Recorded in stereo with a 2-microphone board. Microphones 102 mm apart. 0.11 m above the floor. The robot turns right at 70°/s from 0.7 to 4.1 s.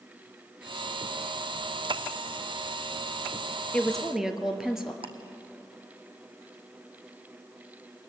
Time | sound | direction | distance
3.7 | a woman speaking | 15° left (ahead or behind) | 2 m
5.0 | ticking | 60° right (ahead or behind) | 1.4 m